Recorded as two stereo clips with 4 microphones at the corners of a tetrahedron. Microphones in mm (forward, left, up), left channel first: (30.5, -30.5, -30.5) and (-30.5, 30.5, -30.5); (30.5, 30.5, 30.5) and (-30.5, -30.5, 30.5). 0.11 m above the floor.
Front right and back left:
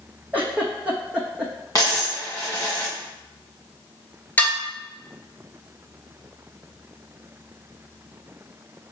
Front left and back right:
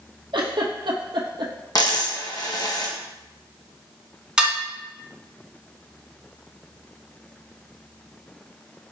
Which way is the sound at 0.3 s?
150° right.